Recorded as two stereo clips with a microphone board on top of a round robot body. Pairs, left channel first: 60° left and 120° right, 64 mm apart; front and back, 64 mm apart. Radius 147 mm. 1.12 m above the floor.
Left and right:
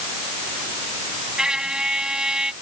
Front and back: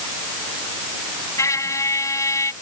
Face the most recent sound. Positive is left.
turn(degrees=-40)